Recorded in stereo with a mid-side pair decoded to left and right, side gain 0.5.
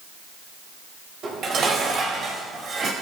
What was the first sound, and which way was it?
Dishes clattering, 50° right.